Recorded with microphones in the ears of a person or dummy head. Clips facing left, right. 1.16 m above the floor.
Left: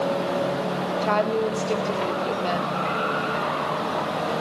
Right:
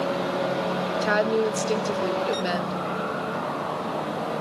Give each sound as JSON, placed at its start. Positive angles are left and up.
{"t": 1.0, "sound": "a woman speaking", "side_deg": -15, "distance_m": 1.6}